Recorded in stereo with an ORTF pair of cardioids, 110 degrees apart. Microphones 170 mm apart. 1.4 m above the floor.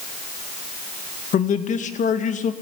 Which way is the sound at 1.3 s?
45° left.